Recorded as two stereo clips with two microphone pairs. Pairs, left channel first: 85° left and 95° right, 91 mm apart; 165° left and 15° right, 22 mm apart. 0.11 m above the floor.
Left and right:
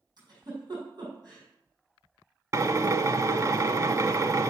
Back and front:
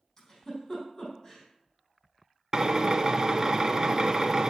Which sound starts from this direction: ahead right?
A drill, at 2.5 s.